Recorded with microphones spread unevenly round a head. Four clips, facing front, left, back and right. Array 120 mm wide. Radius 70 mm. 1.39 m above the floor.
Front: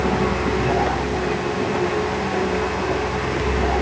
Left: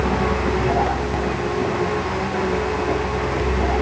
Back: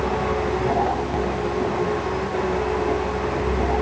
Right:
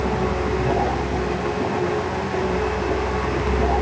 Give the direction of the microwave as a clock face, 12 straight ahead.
No microwave in this recording.